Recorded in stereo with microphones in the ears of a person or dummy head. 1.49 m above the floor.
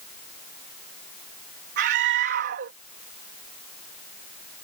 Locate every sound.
1.8 s a scream: 60° right (ahead or behind)